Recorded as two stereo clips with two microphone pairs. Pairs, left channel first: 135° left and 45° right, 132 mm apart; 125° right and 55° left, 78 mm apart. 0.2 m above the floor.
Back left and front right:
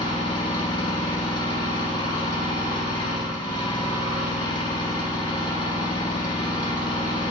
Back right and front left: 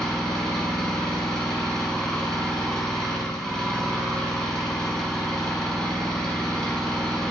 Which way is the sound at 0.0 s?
155° left.